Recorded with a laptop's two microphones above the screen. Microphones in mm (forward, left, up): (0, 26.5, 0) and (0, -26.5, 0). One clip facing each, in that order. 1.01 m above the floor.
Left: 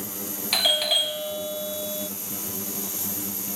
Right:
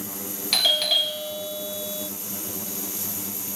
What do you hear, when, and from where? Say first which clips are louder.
0.5 s a doorbell: even; 10° left (ahead or behind), 0.6 m